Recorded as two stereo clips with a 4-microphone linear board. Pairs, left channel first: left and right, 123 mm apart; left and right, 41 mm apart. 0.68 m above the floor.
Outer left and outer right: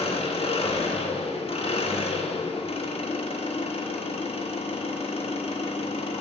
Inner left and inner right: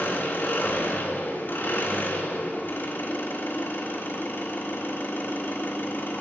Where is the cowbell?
No cowbell in this recording.